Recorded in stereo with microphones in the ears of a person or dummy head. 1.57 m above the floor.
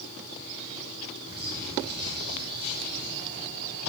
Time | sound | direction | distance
1.3 | a bird | 25° right (ahead or behind) | 4 m